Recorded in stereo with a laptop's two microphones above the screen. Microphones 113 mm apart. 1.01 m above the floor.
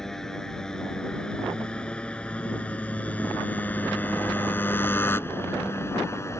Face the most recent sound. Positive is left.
turn(degrees=25)  # may be behind; listen again after turning